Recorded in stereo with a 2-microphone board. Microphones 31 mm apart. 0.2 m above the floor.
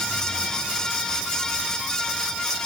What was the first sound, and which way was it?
Only background noise.